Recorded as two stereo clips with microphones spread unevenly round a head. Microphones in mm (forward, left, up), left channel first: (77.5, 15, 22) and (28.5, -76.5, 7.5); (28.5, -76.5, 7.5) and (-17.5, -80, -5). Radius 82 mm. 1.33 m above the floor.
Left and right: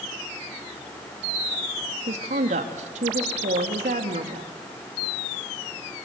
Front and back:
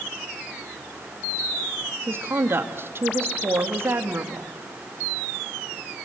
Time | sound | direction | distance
2.1 | a woman speaking | 140° right | 2 m